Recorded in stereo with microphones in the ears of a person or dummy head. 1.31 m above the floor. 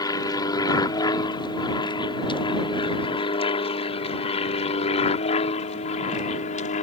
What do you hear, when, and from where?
0.0 s an aircraft: 20° left (ahead or behind); by 6.8 s 45° left (ahead or behind)